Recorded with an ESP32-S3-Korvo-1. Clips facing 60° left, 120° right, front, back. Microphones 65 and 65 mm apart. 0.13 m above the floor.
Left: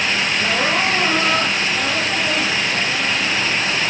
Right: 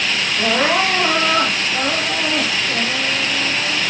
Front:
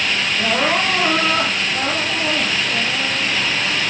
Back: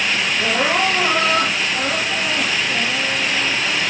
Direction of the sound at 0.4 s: 65° right.